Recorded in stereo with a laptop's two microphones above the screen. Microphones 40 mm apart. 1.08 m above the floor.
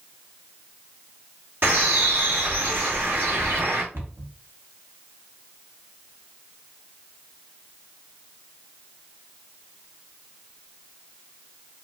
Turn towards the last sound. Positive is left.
turn(degrees=-60)  # may be behind; listen again after turning